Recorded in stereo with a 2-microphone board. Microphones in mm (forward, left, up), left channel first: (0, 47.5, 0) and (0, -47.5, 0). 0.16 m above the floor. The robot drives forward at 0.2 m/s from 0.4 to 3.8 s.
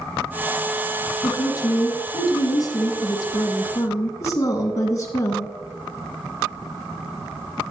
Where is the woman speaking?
40° left (ahead or behind), 1.4 m; by 5.5 s 35° left (ahead or behind), 1.5 m.